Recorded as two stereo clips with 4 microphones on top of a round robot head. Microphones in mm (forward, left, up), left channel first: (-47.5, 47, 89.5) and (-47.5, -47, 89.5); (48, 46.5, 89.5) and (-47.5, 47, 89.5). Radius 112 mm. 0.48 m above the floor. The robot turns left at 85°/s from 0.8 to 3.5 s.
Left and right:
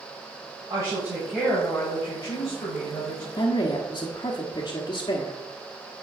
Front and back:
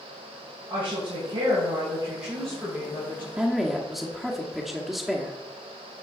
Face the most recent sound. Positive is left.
turn(degrees=95)